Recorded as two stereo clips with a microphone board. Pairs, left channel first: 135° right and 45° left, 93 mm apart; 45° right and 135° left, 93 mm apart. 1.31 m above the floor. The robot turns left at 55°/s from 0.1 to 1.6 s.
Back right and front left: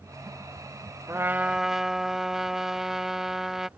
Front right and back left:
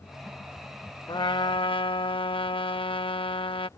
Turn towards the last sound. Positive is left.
turn(degrees=-40)